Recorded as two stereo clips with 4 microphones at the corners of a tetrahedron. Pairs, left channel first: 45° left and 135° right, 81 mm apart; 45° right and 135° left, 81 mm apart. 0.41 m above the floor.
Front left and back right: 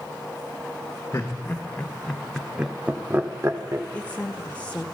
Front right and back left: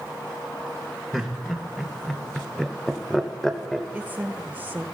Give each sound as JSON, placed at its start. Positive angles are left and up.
{"t": 1.1, "sound": "laughter", "azimuth_deg": 45, "distance_m": 1.4}
{"t": 3.9, "sound": "a woman speaking", "azimuth_deg": 95, "distance_m": 1.0}